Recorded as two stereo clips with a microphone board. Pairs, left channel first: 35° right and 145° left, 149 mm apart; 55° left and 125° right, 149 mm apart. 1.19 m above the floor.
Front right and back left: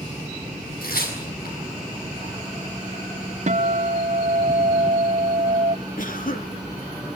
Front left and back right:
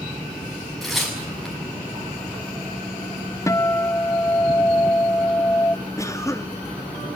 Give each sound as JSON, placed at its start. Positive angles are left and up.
{"t": 0.8, "sound": "tearing paper", "azimuth_deg": -35, "distance_m": 7.0}
{"t": 3.5, "sound": "a guitar", "azimuth_deg": 120, "distance_m": 0.6}
{"t": 6.0, "sound": "a cough", "azimuth_deg": -15, "distance_m": 2.5}